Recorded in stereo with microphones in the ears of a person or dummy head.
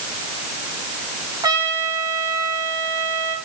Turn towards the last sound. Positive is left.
turn(degrees=-25)  # may be behind; listen again after turning